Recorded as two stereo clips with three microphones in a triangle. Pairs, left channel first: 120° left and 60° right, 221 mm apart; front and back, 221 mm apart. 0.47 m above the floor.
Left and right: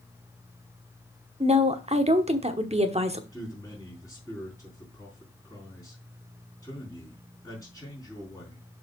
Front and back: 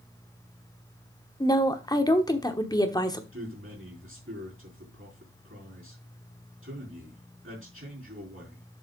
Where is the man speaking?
165° right, 4 m.